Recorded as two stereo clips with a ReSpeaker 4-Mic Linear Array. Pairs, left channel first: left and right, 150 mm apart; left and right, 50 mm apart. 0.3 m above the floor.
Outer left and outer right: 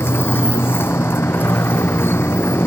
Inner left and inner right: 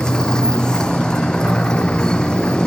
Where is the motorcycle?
15° left (ahead or behind).